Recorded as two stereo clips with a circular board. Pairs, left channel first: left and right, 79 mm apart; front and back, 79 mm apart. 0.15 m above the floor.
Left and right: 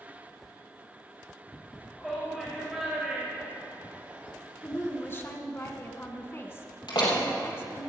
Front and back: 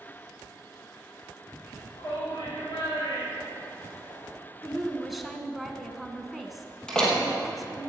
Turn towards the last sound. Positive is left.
turn(degrees=80)